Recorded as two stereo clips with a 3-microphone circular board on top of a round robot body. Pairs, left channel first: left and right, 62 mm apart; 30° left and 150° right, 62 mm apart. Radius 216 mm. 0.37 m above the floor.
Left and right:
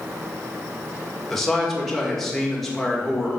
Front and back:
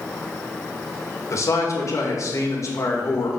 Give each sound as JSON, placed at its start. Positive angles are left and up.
{"t": 1.3, "sound": "a man speaking", "azimuth_deg": 5, "distance_m": 2.0}